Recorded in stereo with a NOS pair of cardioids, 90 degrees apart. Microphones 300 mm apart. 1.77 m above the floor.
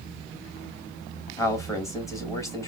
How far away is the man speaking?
About 2.5 m.